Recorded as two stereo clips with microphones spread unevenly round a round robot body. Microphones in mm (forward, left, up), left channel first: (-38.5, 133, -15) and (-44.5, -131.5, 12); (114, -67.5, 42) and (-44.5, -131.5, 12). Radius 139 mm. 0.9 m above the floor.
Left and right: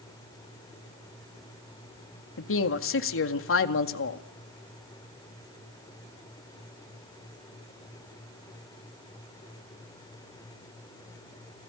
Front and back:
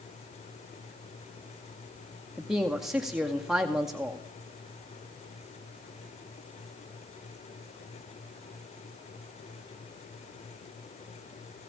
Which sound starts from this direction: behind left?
A man speaking, at 2.4 s.